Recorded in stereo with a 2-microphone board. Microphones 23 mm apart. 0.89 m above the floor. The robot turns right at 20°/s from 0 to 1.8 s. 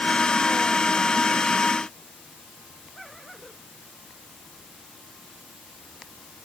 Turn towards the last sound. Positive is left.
No sound to turn to.